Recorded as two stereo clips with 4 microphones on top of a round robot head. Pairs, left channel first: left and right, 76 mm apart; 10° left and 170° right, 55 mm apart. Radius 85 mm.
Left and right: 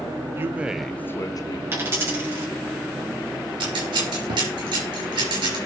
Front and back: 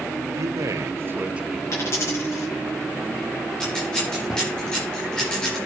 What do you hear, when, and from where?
0.3 s a man speaking: 145° right, 1.2 m; by 1.6 s 110° left, 1.2 m
1.7 s a dropped coin: 30° right, 6.5 m
3.6 s scissors: 70° right, 4.5 m